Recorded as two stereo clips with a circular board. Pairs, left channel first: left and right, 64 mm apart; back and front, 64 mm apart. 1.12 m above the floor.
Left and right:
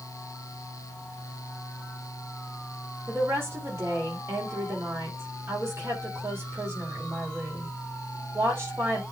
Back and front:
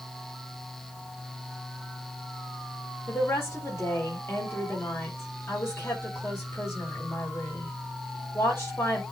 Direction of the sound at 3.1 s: 135° right.